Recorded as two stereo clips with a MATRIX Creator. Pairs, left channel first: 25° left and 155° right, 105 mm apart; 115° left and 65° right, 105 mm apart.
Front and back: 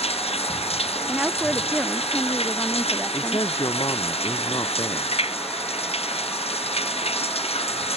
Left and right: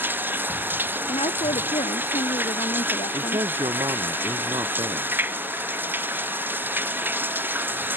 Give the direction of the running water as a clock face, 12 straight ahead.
12 o'clock.